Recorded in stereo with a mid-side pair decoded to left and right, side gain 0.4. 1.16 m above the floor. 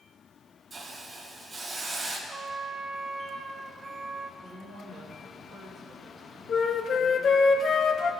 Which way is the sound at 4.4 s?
70° right.